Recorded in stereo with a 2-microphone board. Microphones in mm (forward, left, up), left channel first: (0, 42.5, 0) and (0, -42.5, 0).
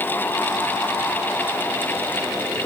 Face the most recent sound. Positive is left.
No sound to turn to.